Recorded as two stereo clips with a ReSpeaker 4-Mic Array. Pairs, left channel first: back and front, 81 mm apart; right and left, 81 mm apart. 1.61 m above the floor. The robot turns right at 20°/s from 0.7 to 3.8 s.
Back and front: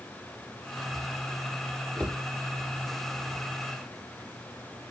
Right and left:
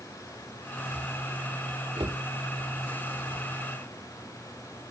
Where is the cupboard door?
100° left, 3 m; by 2.2 s 105° left, 3 m.